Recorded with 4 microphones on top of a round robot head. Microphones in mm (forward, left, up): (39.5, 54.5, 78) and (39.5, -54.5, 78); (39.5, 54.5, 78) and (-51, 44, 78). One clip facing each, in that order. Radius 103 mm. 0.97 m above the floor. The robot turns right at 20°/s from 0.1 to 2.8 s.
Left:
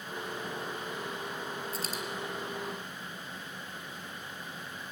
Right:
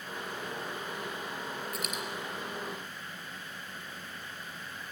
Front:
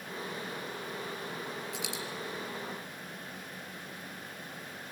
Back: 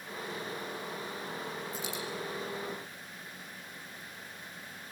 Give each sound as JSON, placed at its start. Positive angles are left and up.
{"t": 1.7, "sound": "a dropped coin", "azimuth_deg": 30, "distance_m": 3.5}